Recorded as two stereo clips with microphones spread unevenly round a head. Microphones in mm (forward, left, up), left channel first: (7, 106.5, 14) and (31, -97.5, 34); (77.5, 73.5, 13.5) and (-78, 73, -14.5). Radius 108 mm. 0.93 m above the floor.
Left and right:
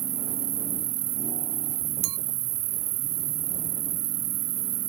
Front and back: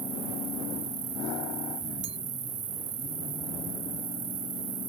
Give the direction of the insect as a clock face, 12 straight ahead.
4 o'clock.